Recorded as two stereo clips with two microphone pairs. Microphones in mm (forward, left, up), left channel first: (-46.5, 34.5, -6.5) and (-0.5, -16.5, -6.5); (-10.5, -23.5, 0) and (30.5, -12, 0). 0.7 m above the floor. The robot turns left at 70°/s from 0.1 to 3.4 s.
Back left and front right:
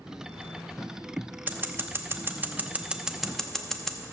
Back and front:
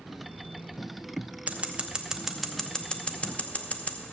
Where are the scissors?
10° right, 0.8 m; by 4.0 s 145° right, 0.8 m.